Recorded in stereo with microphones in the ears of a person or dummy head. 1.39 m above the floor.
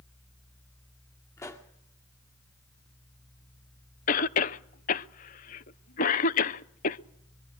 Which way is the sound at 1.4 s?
20° left (ahead or behind).